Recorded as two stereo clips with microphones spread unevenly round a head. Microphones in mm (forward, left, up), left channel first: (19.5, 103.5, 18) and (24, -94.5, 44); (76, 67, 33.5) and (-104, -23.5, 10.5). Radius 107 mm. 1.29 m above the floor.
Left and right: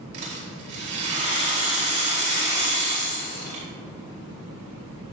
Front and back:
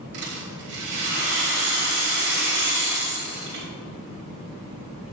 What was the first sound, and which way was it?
A rattle, 115° right.